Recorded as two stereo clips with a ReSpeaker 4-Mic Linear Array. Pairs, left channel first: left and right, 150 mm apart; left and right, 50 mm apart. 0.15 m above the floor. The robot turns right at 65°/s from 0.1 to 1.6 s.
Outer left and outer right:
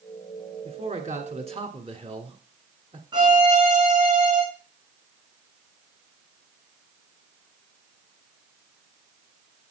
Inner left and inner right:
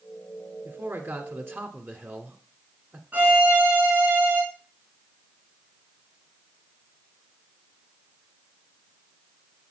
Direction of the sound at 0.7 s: 115° right.